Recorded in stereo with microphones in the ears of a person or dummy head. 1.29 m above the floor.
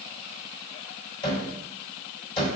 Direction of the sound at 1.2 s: 35° left (ahead or behind).